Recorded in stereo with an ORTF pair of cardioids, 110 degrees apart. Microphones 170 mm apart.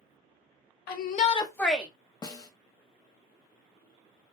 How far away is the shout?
About 0.9 m.